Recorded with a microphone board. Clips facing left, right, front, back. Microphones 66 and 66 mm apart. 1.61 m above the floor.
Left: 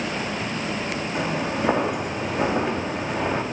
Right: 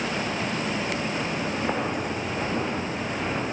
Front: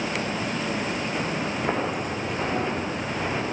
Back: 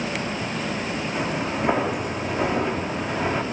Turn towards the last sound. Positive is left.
turn(degrees=95)